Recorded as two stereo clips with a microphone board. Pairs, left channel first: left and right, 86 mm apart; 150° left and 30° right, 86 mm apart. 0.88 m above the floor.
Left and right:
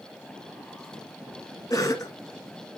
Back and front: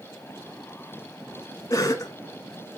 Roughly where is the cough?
Behind left.